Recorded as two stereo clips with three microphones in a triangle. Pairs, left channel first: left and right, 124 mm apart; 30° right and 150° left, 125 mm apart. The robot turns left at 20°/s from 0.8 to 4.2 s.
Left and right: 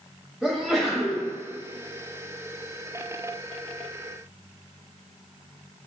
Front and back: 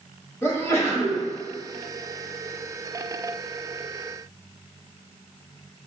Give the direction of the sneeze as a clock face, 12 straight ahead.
12 o'clock.